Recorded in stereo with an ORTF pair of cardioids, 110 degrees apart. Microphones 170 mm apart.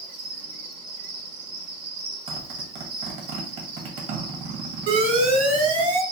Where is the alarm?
60° right, 2.0 m.